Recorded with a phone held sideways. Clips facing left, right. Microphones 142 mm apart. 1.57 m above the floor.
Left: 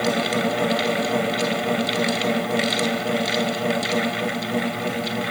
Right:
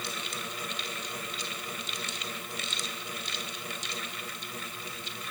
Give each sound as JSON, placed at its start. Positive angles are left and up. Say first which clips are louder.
{"t": 0.0, "sound": "a fan", "louder": "left 19 dB", "side_deg": 80}